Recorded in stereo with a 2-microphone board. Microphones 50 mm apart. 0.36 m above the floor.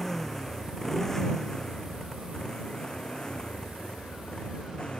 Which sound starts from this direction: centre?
A motorcycle, at 0.0 s.